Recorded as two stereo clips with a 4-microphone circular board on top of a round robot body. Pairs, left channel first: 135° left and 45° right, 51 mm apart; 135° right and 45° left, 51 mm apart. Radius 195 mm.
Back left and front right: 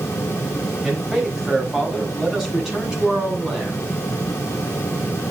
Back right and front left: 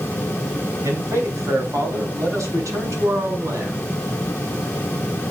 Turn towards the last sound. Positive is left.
turn(degrees=35)